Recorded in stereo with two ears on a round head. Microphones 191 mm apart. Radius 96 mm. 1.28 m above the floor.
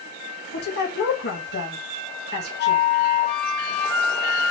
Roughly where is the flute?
Left.